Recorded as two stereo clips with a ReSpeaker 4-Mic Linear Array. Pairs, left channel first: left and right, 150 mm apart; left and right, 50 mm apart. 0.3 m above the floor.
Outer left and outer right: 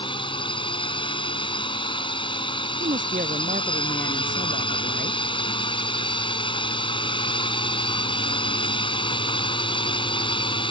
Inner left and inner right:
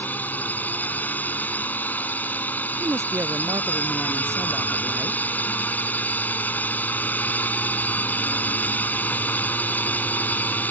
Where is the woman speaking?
75° right (ahead or behind).